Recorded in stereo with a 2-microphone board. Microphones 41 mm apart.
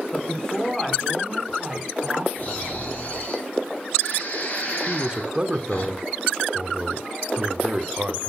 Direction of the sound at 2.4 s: 50° left (ahead or behind).